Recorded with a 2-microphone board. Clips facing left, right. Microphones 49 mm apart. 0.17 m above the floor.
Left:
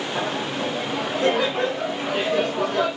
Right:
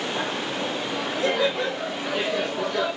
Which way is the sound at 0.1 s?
40° left (ahead or behind).